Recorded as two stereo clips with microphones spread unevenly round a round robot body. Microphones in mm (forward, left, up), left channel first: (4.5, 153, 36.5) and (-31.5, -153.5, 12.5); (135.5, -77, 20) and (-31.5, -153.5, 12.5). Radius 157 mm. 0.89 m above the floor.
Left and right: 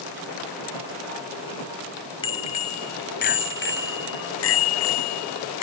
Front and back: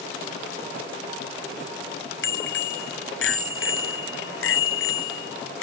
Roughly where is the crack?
No crack in this recording.